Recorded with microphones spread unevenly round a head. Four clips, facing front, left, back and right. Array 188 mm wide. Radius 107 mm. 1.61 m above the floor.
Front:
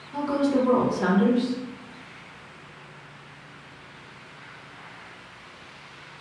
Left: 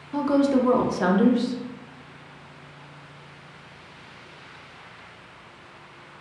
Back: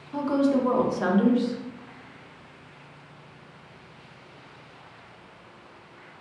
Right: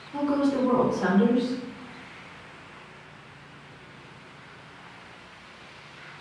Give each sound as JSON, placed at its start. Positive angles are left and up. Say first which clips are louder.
{"t": 0.1, "sound": "a woman speaking", "louder": "left 4 dB, even", "azimuth_deg": 80, "distance_m": 0.6}